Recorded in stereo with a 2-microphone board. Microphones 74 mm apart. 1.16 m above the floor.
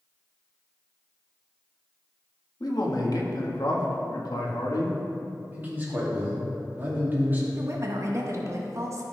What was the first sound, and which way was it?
A man speaking, 60° left (ahead or behind).